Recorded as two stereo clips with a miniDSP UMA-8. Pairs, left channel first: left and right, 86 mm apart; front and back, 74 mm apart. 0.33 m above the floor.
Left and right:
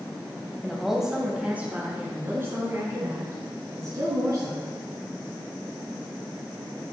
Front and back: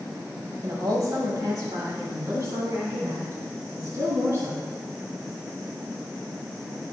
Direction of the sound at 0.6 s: 175° left.